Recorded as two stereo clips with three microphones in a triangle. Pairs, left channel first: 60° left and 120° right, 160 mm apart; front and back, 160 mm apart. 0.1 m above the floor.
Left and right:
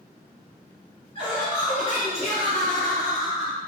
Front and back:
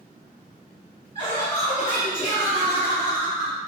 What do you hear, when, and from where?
1.1 s laughter: 30° left, 2.0 m; by 3.6 s 175° left, 1.8 m